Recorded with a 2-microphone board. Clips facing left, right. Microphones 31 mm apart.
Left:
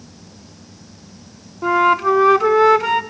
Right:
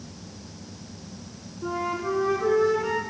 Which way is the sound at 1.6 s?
70° left (ahead or behind).